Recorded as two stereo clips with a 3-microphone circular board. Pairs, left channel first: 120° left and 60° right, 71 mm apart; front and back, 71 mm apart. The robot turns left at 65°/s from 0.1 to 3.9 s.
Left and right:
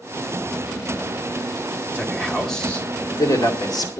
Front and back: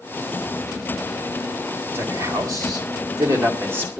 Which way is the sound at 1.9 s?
120° right.